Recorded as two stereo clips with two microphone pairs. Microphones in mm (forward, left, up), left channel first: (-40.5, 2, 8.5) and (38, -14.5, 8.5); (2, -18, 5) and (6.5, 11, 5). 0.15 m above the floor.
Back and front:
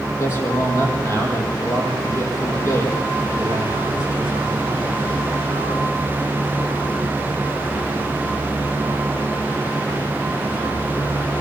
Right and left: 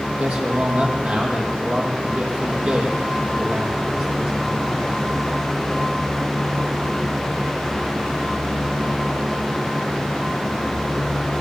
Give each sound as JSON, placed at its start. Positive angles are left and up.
{"t": 0.2, "sound": "a man speaking", "azimuth_deg": 115, "distance_m": 7.0}